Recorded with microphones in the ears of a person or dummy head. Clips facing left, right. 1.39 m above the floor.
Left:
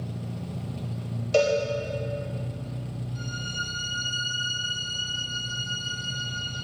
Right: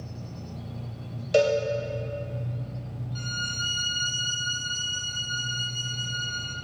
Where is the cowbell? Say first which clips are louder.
Right 1 dB; 10° right (ahead or behind), 0.8 m.